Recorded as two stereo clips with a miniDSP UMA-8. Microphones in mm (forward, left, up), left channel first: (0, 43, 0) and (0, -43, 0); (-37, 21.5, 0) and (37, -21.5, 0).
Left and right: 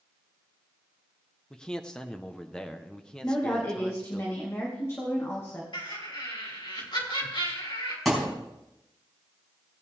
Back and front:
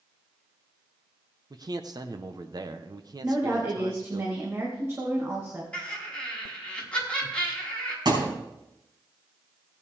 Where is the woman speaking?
30° left, 2 m.